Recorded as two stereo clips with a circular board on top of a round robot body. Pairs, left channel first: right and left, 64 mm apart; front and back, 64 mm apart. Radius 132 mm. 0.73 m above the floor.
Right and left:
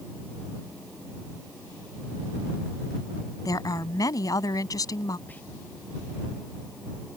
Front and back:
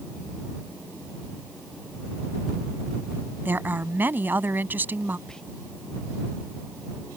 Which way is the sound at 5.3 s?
70° right.